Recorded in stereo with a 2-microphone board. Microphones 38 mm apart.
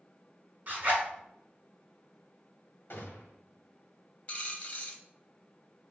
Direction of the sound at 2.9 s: 75° left (ahead or behind).